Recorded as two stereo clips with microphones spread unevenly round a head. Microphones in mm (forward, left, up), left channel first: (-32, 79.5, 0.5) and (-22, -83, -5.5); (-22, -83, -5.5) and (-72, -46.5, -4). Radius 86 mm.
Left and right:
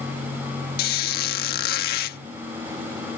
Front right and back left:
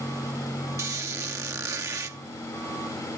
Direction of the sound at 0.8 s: 100° left.